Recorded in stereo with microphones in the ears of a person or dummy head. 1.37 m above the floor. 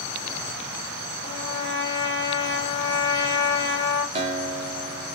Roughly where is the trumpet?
Right.